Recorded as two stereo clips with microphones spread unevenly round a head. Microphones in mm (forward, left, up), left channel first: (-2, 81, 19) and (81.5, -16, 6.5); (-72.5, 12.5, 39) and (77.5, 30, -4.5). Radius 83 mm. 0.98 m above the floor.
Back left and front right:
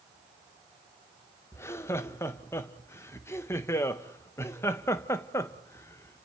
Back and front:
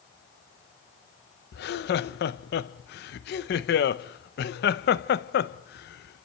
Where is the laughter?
155° right, 0.7 m.